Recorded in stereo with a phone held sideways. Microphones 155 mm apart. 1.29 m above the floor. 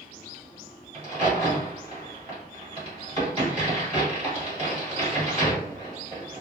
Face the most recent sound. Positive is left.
turn(degrees=-45)  # may be behind; listen again after turning